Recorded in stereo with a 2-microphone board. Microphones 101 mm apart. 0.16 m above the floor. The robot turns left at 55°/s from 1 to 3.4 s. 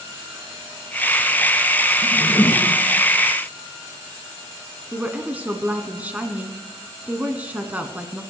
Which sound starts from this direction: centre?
A woman speaking, at 4.9 s.